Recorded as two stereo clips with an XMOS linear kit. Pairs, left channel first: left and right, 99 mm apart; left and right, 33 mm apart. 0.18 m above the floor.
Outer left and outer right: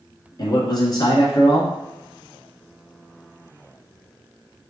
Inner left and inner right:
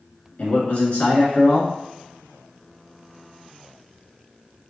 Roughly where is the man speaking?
Left.